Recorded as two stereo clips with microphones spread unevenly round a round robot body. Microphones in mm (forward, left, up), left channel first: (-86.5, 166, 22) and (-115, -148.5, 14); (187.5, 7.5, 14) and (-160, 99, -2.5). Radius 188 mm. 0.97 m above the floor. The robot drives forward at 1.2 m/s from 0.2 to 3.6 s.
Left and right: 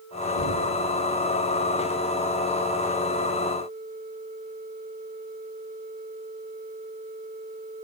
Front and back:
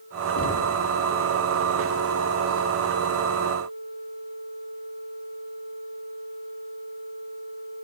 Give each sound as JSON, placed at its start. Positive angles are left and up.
{"t": 0.4, "sound": "knocking", "azimuth_deg": 40, "distance_m": 2.0}